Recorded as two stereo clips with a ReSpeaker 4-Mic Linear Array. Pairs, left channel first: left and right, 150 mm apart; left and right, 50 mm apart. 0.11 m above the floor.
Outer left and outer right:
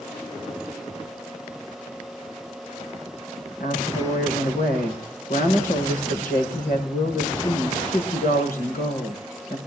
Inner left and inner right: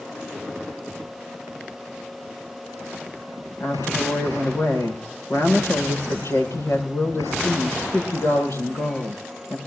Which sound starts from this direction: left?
A woman speaking, at 3.6 s.